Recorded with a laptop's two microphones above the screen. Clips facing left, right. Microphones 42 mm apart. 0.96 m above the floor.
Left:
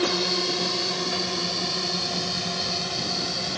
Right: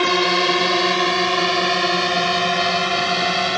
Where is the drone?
60° right (ahead or behind); by 3.6 s 70° right (ahead or behind).